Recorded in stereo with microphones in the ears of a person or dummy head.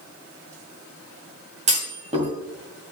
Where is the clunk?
35° right (ahead or behind), 2 m.